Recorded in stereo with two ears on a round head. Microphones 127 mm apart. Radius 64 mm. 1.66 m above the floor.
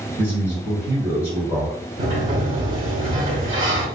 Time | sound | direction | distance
0.2 | a man speaking | 15° right (ahead or behind) | 1.3 m
2.0 | a sliding door | 55° right (ahead or behind) | 0.8 m